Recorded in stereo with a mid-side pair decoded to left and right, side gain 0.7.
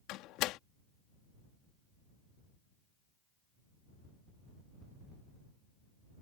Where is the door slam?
60° left.